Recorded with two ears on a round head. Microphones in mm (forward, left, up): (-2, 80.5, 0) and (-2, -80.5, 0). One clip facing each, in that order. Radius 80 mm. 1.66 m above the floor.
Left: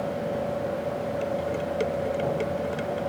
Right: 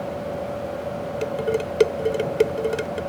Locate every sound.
1.2 s dishes clattering: 70° right (ahead or behind)